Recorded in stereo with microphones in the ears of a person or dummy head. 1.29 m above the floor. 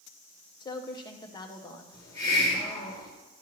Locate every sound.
0.6 s a woman speaking: 25° left (ahead or behind), 0.9 m
1.9 s a hiss: 20° left (ahead or behind), 2.0 m